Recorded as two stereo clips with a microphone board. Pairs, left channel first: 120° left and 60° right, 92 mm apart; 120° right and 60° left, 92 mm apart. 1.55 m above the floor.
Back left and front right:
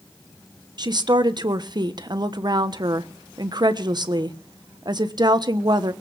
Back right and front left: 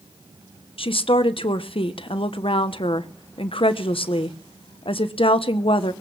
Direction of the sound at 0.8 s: 100° right.